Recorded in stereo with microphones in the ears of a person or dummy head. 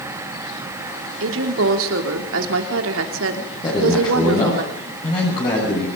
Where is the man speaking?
30° left (ahead or behind), 7.5 m.